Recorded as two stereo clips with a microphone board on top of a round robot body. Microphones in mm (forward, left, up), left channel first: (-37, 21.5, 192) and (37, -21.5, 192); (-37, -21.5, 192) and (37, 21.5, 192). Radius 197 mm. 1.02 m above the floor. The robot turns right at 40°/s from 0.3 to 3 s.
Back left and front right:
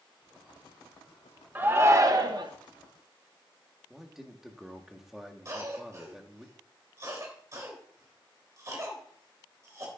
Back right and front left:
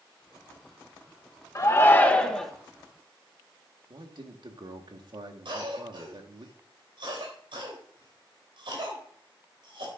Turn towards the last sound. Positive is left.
turn(degrees=20)